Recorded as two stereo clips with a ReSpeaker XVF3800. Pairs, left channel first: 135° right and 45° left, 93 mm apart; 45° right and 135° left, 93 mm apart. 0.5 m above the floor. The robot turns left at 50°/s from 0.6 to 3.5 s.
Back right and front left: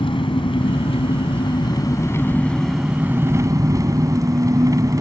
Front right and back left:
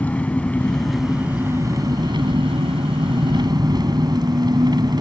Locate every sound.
0.0 s an engine running: 120° right; by 5.0 s 95° left